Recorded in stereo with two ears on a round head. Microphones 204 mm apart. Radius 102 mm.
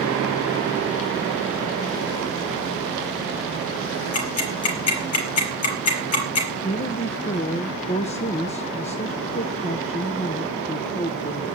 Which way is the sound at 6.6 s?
30° left (ahead or behind).